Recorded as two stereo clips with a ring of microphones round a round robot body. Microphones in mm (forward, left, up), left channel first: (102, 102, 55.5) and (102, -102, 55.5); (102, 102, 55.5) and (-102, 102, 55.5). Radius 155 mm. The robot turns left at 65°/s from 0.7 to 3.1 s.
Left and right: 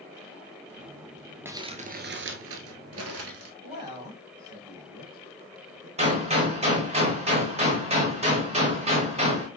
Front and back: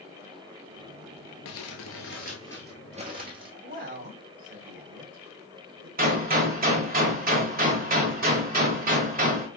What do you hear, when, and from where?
1.4 s crumpling: 10° right, 1.0 m; by 3.5 s 115° right, 1.0 m
3.6 s a man speaking: 160° right, 1.6 m
6.0 s a gunshot: 145° right, 1.4 m